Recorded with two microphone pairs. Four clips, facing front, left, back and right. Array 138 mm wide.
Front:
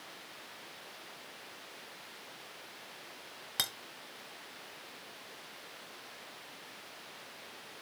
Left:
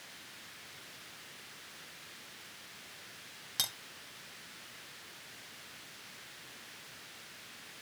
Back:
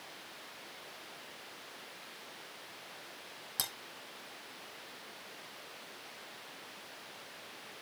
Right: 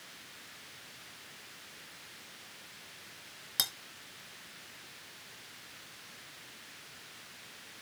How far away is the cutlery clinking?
About 2.5 m.